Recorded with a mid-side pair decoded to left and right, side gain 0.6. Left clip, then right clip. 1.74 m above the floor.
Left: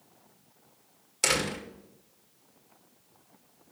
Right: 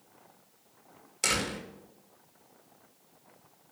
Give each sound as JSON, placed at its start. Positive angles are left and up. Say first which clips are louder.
{"t": 1.2, "sound": "a door slam", "louder": "left 2 dB", "azimuth_deg": 15, "distance_m": 2.5}